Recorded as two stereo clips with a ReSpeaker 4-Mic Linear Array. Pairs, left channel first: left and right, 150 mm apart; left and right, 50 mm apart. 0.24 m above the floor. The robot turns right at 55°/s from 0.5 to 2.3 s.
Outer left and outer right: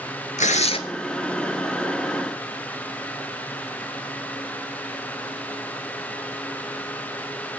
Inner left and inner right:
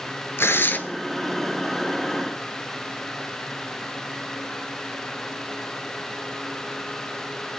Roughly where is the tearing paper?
Left.